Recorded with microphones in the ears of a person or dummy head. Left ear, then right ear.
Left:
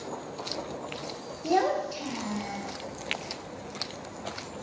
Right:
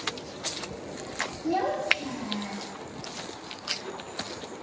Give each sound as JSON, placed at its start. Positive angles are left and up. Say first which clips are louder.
{"t": 1.4, "sound": "a child speaking", "louder": "left 1 dB", "side_deg": 75, "distance_m": 0.8}